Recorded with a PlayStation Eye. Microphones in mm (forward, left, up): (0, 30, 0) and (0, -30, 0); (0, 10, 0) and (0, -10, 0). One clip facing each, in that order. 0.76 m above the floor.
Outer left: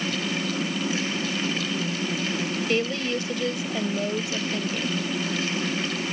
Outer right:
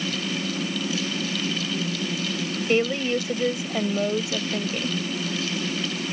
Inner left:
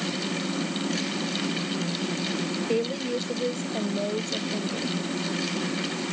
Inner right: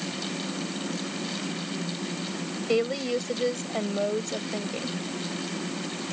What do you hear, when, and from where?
2.7 s a woman speaking: 25° right (ahead or behind)